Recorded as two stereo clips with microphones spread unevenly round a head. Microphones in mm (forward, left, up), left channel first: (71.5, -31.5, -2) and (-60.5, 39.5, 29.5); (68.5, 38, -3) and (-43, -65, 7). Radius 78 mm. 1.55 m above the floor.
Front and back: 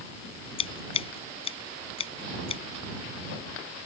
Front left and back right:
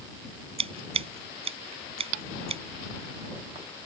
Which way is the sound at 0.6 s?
85° right.